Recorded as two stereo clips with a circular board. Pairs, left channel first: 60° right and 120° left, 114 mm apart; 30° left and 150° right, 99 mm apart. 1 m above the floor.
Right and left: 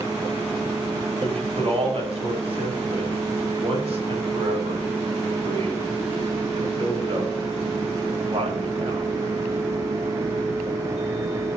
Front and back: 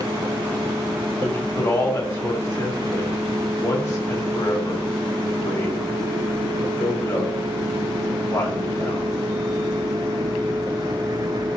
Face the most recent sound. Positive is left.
turn(degrees=90)